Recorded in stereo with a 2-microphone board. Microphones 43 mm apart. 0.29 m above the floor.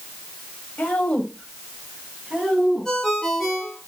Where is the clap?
No clap in this recording.